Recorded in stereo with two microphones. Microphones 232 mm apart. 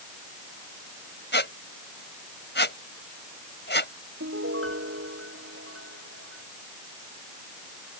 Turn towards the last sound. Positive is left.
turn(degrees=-65)  # may be behind; listen again after turning